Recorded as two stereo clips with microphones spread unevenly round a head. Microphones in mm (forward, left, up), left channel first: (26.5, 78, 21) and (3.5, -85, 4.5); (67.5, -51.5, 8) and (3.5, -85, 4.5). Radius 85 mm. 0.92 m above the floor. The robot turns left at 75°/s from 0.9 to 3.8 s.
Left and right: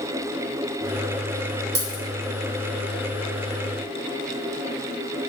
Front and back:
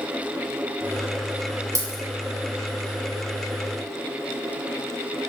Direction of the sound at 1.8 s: 115° right.